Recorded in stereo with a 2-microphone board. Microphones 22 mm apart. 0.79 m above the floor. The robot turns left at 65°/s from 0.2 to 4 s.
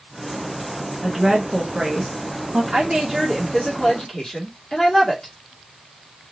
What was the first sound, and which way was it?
A woman speaking, 10° right.